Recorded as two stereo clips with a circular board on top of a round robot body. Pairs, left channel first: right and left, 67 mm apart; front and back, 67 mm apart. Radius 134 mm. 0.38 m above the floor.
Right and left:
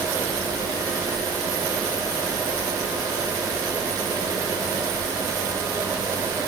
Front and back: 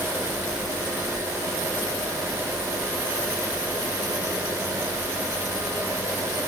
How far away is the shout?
No shout in this recording.